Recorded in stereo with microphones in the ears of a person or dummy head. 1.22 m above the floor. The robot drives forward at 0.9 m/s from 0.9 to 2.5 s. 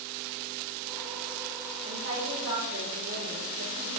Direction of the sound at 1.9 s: 65° right (ahead or behind).